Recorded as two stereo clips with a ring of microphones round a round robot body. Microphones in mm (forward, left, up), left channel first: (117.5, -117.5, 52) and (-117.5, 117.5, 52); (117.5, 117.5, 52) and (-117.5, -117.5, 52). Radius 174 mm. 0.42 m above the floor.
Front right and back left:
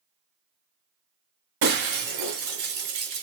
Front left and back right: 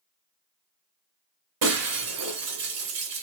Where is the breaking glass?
Straight behind, 1.9 m.